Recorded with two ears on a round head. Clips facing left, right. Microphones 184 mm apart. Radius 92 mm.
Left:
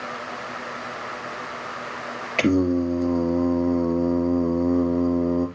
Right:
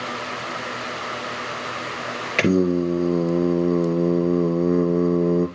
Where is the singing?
20° right (ahead or behind), 2 m.